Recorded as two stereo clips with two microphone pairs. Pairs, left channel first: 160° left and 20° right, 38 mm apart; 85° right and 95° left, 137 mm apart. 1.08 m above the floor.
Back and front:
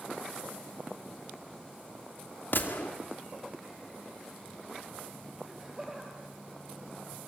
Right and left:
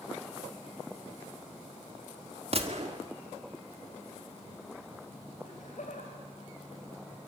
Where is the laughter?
100° right, 3 m.